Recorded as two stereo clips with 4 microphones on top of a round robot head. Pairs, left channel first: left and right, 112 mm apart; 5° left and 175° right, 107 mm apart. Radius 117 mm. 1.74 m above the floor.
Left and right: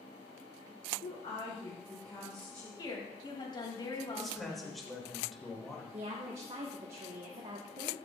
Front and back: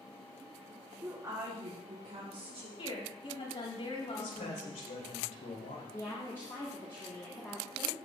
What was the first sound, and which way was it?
A woman speaking, 115° left.